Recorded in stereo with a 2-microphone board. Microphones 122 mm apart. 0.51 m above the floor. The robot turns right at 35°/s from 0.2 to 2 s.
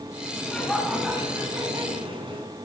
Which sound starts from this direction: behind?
Laughter, at 0.4 s.